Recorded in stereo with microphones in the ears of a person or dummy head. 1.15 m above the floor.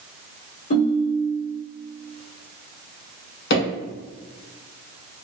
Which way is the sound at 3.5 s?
60° left (ahead or behind).